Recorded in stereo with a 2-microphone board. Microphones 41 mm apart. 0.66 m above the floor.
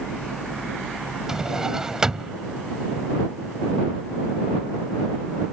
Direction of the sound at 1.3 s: 15° right (ahead or behind).